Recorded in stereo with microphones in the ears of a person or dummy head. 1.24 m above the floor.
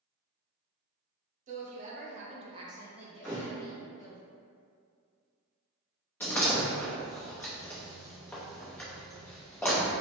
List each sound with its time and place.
1.5 s a woman speaking: 40° right (ahead or behind), 1.0 m; by 4.2 s 25° left (ahead or behind), 1.0 m
3.2 s a thud: 5° left (ahead or behind), 1.0 m
6.2 s a door slam: 15° left (ahead or behind), 0.6 m